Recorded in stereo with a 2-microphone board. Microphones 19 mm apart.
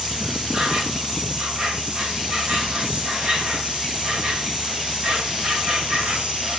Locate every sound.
0.0 s an insect: 75° right (ahead or behind), 2.5 m